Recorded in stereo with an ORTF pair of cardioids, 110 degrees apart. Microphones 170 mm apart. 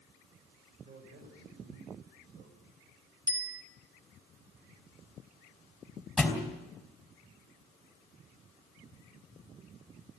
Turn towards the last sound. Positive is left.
turn(degrees=0)